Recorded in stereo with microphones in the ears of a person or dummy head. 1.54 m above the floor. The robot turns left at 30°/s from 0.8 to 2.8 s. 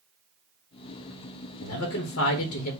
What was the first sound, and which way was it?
A man speaking, 75° left.